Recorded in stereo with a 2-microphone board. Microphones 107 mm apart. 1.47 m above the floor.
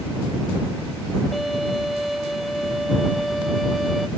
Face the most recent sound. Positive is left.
turn(degrees=0)  # may be behind; listen again after turning